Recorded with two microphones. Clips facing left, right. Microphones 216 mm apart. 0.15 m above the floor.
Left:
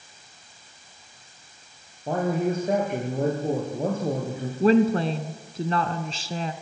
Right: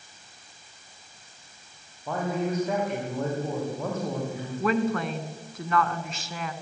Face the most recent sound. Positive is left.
turn(degrees=30)  # may be behind; listen again after turning